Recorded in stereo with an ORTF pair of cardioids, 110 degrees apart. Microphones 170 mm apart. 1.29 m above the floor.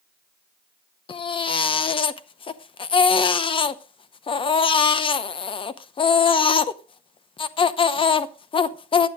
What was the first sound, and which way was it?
A baby crying, 30° left.